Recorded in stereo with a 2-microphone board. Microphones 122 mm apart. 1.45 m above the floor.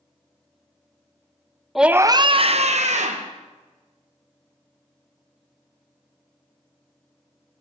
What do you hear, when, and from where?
1.8 s a scream: centre (ahead or behind), 0.6 m; by 3.3 s 75° right (ahead or behind), 1.5 m